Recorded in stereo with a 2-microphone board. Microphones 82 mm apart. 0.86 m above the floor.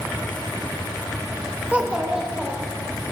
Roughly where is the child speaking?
Centre.